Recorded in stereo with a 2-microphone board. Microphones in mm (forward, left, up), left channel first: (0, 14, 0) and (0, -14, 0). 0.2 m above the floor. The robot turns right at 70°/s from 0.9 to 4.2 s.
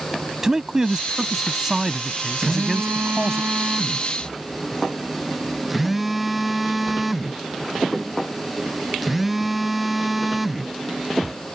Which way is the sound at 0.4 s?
20° right (ahead or behind).